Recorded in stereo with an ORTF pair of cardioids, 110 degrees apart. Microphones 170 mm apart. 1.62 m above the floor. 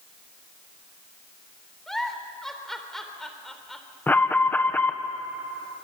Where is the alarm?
10° left, 1.8 m.